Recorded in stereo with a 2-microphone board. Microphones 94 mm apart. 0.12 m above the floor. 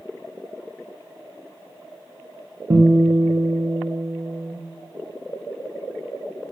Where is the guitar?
70° right (ahead or behind), 2 m.